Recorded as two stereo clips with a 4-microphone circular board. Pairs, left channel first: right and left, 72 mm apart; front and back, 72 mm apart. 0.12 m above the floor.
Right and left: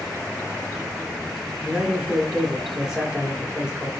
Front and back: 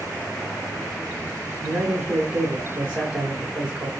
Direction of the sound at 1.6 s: 150° left.